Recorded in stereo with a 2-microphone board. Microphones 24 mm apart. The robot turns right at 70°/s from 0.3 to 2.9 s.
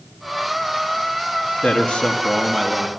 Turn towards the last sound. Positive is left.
turn(degrees=-165)